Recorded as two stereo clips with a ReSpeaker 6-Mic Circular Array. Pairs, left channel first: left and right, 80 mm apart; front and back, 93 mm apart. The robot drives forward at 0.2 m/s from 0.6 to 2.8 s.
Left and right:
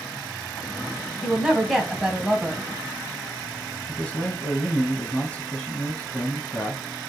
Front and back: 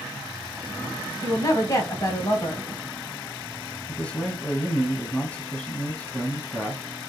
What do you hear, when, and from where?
1.2 s a woman speaking: 10° right, 1.2 m; by 2.7 s 20° right, 1.0 m
3.9 s a man speaking: 50° left, 1.1 m